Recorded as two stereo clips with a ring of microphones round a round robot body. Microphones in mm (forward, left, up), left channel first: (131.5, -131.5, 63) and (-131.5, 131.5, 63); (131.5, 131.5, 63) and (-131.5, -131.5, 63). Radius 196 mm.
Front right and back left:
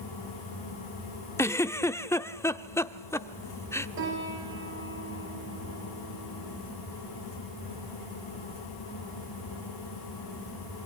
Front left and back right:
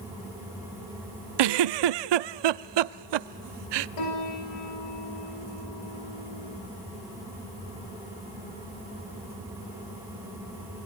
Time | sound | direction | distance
1.4 | a giggle | 130° right | 0.8 m
4.0 | a piano | 75° left | 8.5 m